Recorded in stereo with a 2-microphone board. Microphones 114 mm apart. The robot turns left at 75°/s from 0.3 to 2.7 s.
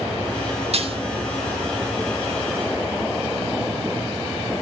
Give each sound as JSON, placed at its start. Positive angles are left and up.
{"t": 0.7, "sound": "dishes clattering", "side_deg": -65, "distance_m": 2.5}